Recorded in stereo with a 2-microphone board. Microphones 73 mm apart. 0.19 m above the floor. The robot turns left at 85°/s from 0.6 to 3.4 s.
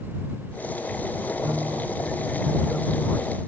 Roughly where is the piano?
Ahead right.